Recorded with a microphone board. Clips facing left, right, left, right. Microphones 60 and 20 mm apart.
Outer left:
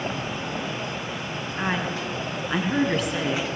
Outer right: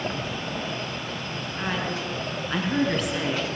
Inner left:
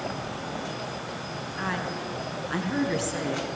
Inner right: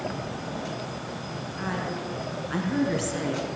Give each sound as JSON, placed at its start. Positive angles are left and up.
{"t": 1.6, "sound": "a woman speaking", "side_deg": 20, "distance_m": 3.5}